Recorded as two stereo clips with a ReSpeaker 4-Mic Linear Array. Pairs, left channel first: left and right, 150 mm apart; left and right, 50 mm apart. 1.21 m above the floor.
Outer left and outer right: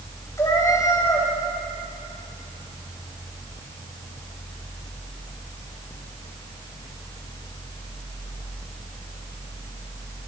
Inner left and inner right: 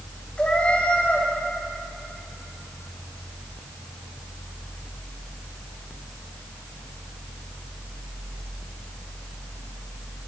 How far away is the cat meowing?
About 3.5 m.